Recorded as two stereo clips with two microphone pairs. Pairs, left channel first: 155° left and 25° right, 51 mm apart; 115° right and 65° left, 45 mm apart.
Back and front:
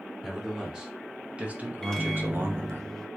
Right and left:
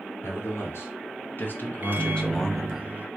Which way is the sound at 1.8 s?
75° left.